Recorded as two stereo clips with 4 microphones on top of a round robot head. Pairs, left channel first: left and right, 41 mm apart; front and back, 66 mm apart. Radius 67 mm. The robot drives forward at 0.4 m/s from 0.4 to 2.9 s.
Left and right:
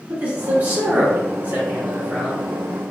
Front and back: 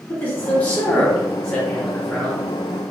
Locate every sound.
0.1 s a man speaking: 60° right, 1.6 m; by 2.4 s 95° right, 1.5 m